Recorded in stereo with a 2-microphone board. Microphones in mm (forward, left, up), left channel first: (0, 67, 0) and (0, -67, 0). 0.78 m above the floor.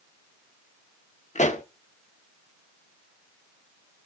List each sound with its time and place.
1.4 s a pop: 70° left (ahead or behind), 1.3 m